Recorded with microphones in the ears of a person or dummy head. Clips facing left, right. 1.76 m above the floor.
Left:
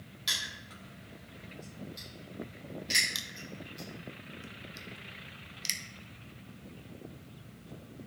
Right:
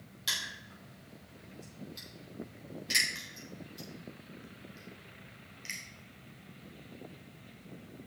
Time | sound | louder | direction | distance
0.3 | crushing | even | 5° right (ahead or behind) | 5 m
3.1 | crushing | left 2 dB | 55° left (ahead or behind) | 1.1 m